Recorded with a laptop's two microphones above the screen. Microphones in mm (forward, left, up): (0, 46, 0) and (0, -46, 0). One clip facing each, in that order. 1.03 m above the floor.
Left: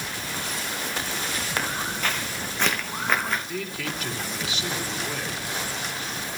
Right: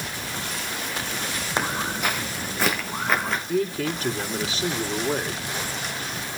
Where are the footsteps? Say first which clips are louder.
Right 4 dB; 20° right (ahead or behind), 2 m; by 3.4 s centre (ahead or behind), 4 m.